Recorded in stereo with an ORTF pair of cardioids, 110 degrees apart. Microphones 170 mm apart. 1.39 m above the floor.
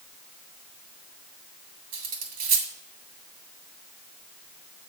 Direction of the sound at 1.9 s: 65° right.